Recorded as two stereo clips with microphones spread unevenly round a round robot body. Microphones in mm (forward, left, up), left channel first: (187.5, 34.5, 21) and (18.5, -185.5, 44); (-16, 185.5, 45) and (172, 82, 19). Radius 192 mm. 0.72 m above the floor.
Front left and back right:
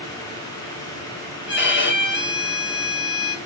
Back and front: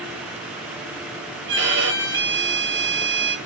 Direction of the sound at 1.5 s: 5° left.